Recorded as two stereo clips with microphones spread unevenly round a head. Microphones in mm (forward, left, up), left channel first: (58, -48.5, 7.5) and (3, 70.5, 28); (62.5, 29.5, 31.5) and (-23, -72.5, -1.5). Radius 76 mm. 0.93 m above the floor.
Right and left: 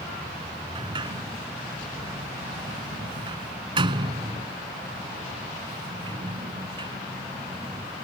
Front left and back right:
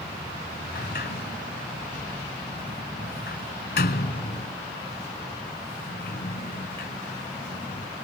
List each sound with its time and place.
0.8 s a sliding door: 65° left